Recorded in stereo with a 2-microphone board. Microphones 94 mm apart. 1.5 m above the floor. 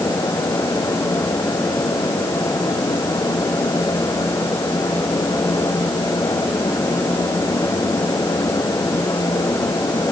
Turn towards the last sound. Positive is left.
No sound to turn to.